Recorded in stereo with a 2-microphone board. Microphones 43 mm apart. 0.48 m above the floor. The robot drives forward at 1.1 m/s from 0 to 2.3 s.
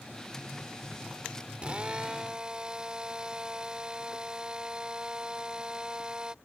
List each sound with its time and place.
1.6 s a drill: 25° right (ahead or behind); by 6.3 s 20° right (ahead or behind)